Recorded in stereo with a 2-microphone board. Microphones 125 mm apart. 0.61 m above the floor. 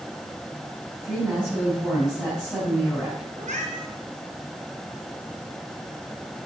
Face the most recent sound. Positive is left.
turn(degrees=-75)  # may be behind; listen again after turning